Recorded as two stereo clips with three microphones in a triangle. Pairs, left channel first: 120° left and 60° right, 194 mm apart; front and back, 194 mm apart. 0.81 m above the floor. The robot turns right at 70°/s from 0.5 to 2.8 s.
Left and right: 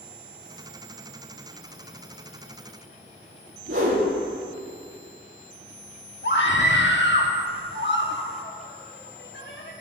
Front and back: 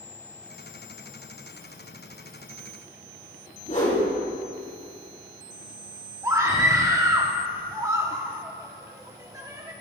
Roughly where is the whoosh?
Ahead right.